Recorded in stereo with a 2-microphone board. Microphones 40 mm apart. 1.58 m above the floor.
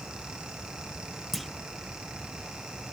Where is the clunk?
Centre (ahead or behind), 0.6 m.